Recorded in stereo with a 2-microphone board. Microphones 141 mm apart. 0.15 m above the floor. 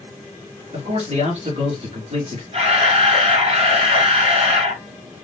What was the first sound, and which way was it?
A man speaking, 50° right (ahead or behind).